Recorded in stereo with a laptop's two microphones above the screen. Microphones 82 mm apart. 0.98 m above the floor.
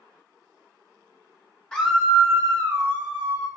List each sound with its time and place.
1.7 s a scream: 10° left (ahead or behind), 0.7 m; by 3.5 s 80° right, 1.2 m